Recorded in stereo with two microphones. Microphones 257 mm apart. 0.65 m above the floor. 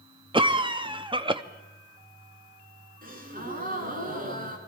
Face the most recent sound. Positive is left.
turn(degrees=-35)  # may be behind; listen again after turning